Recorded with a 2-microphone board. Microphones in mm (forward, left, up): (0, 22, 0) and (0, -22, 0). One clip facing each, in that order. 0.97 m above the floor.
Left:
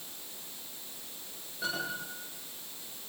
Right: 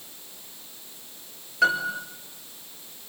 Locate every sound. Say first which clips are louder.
1.6 s a piano: right 12 dB; 85° right, 8 m